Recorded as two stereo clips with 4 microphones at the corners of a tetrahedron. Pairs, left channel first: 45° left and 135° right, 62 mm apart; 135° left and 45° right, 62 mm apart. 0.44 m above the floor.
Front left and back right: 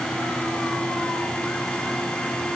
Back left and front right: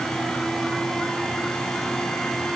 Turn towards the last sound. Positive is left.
No sound to turn to.